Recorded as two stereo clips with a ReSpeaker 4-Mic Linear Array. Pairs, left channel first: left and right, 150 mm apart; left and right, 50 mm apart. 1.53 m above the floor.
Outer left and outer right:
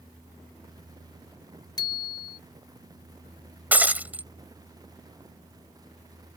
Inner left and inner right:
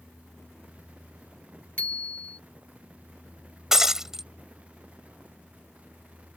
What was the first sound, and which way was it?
A bicycle bell, 30° left (ahead or behind).